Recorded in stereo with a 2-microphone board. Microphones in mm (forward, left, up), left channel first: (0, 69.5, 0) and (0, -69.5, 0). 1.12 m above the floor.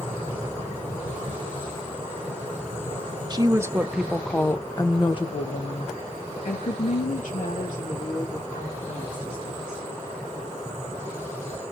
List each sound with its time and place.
3.3 s a woman speaking: 30° right (ahead or behind), 0.9 m; by 9.8 s 80° left, 3.5 m